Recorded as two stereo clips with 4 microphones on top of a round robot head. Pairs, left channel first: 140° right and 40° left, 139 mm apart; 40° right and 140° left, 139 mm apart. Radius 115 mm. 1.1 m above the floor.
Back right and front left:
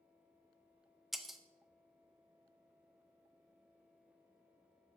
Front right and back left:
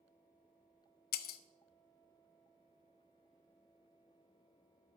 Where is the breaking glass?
50° right, 0.5 m.